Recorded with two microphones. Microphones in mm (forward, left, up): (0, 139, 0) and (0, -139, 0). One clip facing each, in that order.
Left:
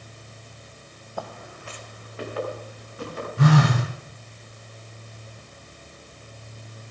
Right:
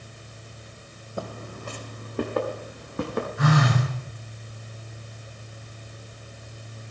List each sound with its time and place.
1.2 s footsteps: 25° right (ahead or behind), 1.2 m; by 3.3 s 65° right (ahead or behind), 4 m
3.4 s a phone buzzing: 35° left (ahead or behind), 5.5 m